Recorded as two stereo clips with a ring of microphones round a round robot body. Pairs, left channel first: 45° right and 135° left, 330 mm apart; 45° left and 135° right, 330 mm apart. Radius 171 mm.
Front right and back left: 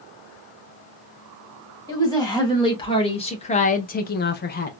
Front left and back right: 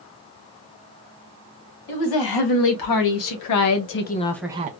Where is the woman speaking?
35° left, 2.0 m; by 4.7 s 90° right, 0.6 m.